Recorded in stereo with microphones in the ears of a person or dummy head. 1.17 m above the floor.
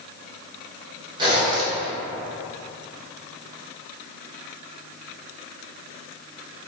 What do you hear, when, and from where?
1.2 s a zipper: 25° right (ahead or behind), 1.1 m